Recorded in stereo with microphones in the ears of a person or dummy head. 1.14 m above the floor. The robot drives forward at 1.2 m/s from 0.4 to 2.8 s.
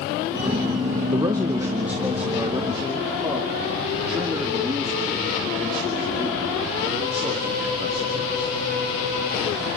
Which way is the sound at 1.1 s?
30° right (ahead or behind).